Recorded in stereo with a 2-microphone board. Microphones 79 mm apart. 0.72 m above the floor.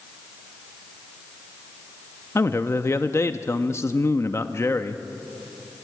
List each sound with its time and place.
2.4 s a man speaking: 35° left (ahead or behind), 0.7 m